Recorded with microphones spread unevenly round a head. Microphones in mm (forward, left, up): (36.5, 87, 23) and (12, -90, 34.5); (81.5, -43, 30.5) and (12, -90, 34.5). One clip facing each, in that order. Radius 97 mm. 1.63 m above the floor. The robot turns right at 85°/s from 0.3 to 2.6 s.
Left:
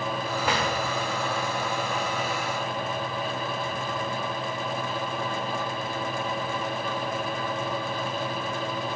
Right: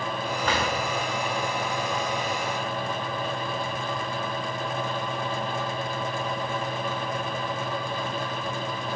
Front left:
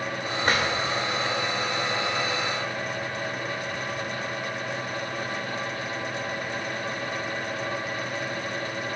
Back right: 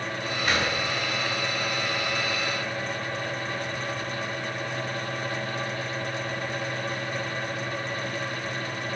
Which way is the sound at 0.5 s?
Straight ahead.